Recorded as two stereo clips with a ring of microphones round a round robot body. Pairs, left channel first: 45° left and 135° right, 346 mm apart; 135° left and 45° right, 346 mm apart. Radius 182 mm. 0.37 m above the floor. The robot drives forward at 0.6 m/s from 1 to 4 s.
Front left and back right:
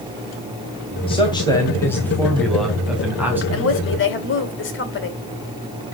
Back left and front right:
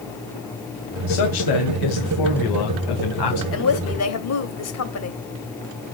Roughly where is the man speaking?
Behind left.